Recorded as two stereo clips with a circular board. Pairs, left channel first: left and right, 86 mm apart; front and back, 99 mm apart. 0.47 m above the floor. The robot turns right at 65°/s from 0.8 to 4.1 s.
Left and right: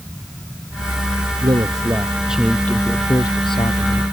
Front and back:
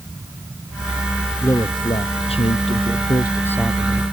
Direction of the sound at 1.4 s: 65° right.